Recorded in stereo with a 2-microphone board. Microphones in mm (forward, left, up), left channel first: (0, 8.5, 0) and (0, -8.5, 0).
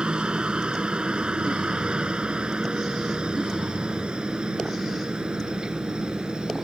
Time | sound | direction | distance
0.0 | a helicopter | 60° right (ahead or behind) | ?